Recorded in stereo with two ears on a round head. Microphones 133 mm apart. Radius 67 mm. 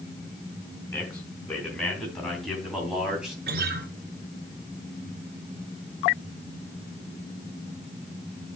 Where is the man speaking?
5° left (ahead or behind), 4 m; by 3.4 s 5° right (ahead or behind), 3 m.